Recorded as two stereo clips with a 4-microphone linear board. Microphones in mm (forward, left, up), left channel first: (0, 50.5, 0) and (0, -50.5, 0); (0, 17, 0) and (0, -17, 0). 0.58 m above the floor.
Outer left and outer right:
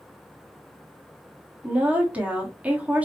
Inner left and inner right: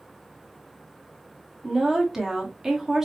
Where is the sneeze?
I don't hear a sneeze.